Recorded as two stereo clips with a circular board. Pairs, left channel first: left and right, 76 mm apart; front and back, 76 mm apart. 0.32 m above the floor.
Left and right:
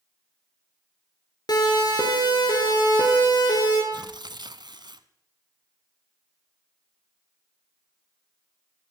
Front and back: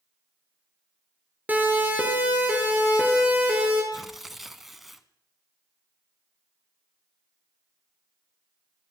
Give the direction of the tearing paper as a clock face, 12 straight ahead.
3 o'clock.